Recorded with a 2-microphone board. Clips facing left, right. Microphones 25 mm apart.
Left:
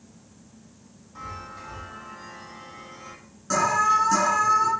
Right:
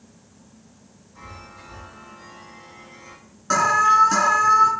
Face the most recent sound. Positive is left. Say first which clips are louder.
# right 4 dB
turn(degrees=-35)  # may be behind; listen again after turning